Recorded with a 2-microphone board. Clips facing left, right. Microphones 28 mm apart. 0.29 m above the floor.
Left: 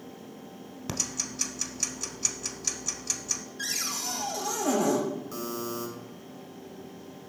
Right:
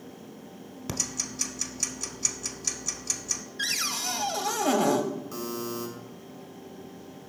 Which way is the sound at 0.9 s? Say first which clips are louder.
Even; 10° left (ahead or behind).